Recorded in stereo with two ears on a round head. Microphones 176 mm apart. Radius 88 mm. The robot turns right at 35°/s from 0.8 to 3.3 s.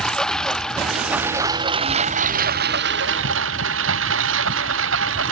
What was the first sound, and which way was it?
A lawn mower, 175° left.